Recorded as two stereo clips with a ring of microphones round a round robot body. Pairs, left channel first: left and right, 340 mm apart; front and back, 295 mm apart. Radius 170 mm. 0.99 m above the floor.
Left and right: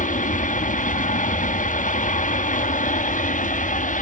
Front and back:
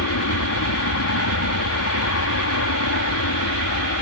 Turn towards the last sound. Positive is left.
turn(degrees=20)